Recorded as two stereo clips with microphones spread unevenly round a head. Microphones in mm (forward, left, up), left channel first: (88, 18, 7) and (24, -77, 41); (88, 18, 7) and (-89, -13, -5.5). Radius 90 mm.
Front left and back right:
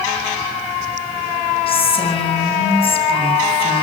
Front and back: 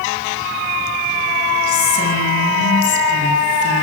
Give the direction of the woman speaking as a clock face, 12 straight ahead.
11 o'clock.